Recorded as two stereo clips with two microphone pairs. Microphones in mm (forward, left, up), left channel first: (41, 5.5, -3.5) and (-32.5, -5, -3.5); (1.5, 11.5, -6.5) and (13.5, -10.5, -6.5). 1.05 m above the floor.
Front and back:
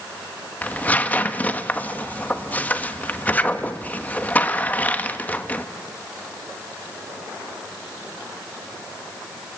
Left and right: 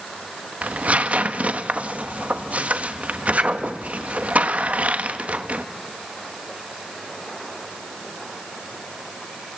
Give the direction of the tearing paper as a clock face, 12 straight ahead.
2 o'clock.